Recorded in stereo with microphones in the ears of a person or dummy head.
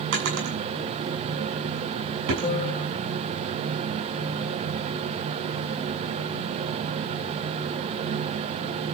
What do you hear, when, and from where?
0.1 s a drawer: 70° right (ahead or behind), 7.5 m
2.4 s a piano: 35° left (ahead or behind), 1.5 m